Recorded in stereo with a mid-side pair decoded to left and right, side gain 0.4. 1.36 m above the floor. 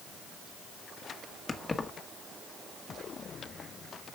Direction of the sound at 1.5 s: 30° left.